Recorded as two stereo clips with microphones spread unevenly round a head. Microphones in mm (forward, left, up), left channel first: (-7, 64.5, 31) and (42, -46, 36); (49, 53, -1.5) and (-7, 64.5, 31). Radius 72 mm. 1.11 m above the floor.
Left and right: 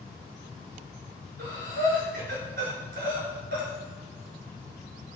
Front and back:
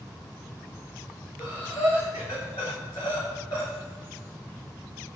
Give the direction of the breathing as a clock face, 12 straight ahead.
3 o'clock.